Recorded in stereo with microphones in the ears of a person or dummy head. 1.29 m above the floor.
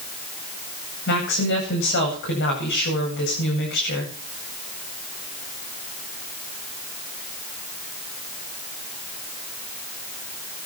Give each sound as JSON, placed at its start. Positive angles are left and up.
{"t": 1.1, "sound": "a woman speaking", "side_deg": 60, "distance_m": 9.0}